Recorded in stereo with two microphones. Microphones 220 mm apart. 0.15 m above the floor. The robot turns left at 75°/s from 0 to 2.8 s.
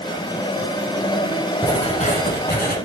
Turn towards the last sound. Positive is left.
turn(degrees=70)